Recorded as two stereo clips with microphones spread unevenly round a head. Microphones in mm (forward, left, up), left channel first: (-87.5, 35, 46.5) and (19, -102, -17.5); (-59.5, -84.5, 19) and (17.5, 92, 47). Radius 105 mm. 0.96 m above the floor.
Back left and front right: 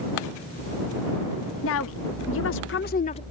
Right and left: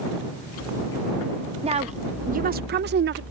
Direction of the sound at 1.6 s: 130° left.